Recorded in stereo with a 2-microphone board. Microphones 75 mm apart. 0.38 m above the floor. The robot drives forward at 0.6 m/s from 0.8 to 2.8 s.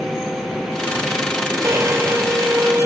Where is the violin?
35° right (ahead or behind), 1.2 m; by 2.9 s 30° right (ahead or behind), 1.4 m.